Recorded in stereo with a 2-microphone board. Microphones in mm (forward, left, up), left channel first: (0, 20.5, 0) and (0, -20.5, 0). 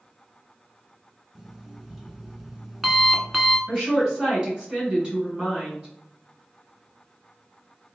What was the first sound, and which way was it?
An alarm clock, 10° right (ahead or behind).